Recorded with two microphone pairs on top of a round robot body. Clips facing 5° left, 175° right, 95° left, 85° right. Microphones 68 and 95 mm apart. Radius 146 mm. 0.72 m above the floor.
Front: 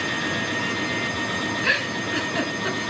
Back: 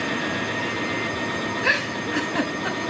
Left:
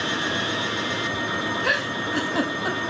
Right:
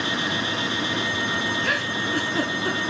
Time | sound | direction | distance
1.6 | a giggle | 115° left | 4 m